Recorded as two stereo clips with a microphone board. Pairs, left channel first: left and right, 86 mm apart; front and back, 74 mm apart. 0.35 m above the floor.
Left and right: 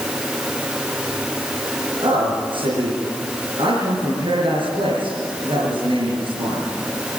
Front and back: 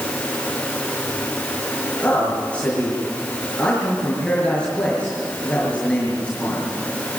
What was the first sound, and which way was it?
A man speaking, 75° right.